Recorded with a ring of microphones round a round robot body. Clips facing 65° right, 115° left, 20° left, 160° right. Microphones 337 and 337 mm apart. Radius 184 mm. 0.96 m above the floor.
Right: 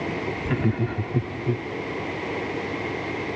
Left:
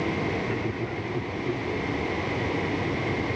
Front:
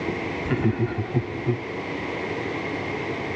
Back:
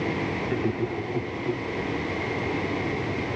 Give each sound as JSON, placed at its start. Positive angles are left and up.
{"t": 0.5, "sound": "laughter", "azimuth_deg": -40}